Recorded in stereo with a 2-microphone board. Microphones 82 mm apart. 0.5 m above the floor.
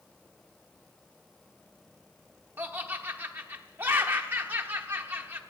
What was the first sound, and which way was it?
Laughter, 25° right (ahead or behind).